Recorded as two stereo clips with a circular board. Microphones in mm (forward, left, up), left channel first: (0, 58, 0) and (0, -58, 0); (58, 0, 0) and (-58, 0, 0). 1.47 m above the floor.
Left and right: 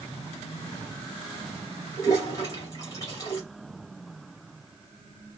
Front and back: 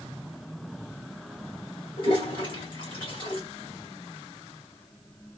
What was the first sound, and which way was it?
A toilet flushing, 35° left.